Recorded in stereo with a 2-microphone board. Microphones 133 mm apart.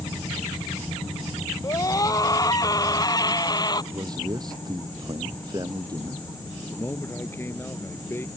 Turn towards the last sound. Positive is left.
turn(degrees=15)  # may be behind; listen again after turning